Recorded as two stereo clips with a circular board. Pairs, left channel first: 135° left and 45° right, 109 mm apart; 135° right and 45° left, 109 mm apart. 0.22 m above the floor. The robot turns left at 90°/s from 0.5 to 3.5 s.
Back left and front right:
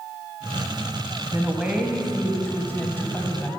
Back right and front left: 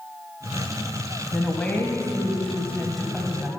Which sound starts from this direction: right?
A woman speaking, at 1.3 s.